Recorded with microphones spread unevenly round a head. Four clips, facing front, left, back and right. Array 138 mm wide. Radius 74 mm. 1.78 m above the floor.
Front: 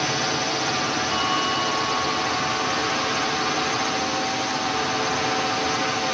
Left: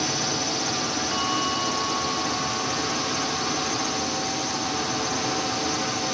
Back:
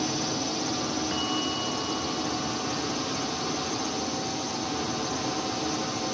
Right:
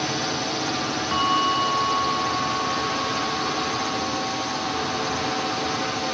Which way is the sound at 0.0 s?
10° right.